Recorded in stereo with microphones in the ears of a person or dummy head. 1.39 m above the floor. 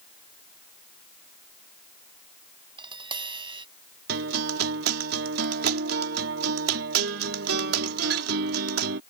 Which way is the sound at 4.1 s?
65° right (ahead or behind).